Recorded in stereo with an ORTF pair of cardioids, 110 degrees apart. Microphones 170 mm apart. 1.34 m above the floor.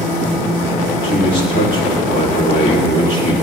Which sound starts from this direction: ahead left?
A man speaking, at 1.0 s.